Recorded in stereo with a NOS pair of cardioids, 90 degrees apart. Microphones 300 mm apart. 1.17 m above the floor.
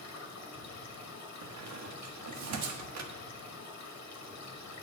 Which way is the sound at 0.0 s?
60° left.